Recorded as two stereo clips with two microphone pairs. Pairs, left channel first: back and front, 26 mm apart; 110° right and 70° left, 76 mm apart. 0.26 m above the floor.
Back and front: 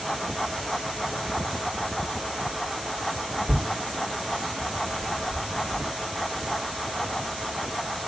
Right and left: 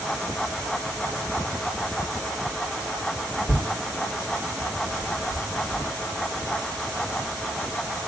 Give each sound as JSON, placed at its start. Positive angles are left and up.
{"t": 3.5, "sound": "tearing paper", "azimuth_deg": -140, "distance_m": 6.0}